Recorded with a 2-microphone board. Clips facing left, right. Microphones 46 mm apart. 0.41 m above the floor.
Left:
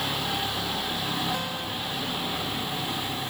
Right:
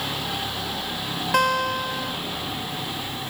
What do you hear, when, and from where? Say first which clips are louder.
1.3 s a guitar: right 11 dB; 80° right